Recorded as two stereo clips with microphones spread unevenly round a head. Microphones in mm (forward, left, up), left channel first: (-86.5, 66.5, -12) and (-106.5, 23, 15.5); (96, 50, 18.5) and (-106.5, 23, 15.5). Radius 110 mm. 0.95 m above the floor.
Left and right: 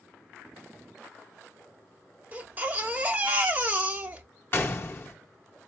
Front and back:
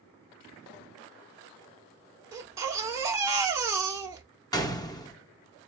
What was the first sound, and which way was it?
A baby crying, 95° right.